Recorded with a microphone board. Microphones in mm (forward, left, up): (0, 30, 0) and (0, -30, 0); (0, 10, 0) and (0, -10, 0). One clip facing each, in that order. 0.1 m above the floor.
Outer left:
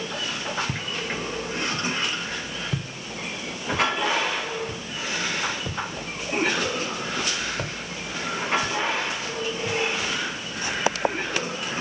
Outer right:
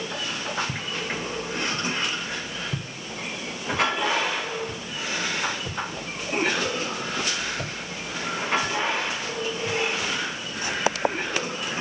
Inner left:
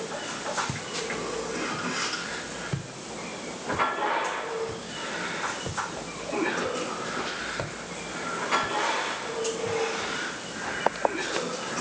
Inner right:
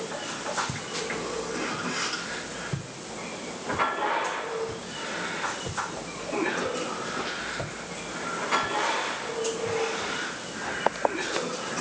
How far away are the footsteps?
About 2 m.